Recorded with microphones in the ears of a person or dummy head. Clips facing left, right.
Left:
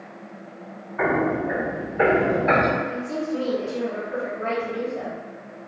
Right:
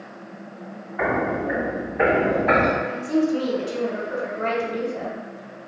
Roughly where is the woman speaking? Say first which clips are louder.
Right 6 dB; right.